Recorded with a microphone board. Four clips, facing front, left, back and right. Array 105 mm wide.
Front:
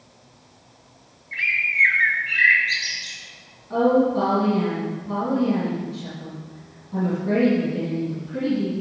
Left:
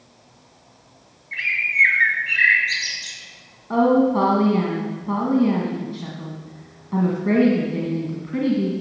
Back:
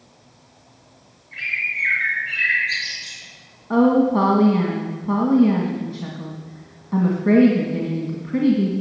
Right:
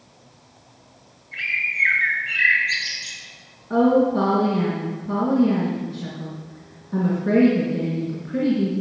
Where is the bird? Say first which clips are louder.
Left 3 dB, front 3 dB; 60° left, 2.5 m.